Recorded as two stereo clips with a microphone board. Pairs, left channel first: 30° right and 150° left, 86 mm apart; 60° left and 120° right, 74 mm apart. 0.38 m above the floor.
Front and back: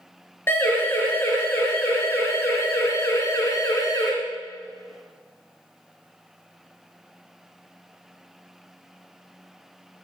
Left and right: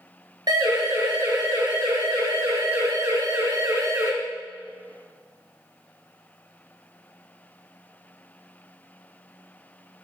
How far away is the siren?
About 5 m.